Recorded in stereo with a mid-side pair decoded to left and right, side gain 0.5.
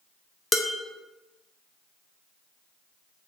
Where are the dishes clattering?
25° left, 0.5 m.